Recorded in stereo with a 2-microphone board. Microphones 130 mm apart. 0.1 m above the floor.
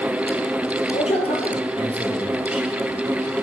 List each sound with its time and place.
0.9 s a man speaking: 50° left (ahead or behind), 2.5 m